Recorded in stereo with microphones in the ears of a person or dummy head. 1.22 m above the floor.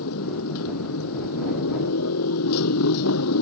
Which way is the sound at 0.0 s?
80° left.